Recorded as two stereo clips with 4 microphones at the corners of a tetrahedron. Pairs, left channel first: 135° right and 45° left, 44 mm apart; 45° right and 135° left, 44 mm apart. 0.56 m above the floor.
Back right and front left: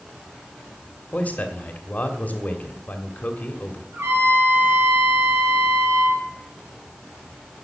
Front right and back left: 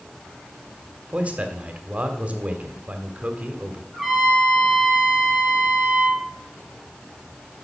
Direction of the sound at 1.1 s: 175° right.